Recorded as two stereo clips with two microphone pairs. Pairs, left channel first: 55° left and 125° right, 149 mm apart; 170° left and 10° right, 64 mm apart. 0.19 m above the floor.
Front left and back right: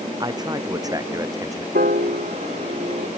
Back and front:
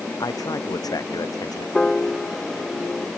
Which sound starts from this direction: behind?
A man speaking, at 0.2 s.